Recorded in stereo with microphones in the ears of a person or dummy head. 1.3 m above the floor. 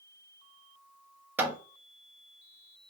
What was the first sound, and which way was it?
Hammering, 10° right (ahead or behind).